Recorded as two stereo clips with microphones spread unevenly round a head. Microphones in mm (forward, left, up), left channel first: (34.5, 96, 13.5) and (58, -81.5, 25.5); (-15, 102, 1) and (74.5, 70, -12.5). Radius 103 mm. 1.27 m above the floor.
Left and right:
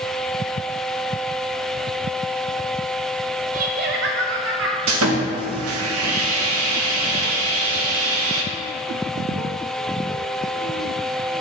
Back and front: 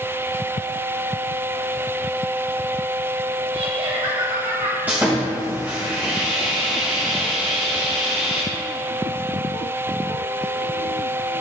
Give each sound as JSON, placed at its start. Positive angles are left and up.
{"t": 3.5, "sound": "laughter", "azimuth_deg": -40, "distance_m": 0.7}
{"t": 4.9, "sound": "sawing", "azimuth_deg": -105, "distance_m": 1.0}